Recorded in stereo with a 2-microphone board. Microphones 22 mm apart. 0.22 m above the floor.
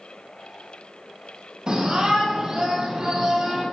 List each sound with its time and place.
1.7 s a shout: 45° right (ahead or behind), 8 m; by 3.6 s 35° right (ahead or behind), 7.5 m